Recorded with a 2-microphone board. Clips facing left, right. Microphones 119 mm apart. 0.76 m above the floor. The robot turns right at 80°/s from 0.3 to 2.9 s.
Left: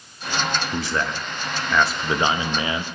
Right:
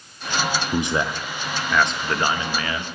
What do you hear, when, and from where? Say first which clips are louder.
0.7 s a man speaking: right 3 dB; 20° right (ahead or behind), 0.5 m; by 2.8 s 20° left (ahead or behind), 0.5 m